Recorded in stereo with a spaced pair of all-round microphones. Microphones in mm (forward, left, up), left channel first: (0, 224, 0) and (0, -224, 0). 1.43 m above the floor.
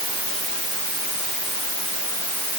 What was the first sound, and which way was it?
Only background noise.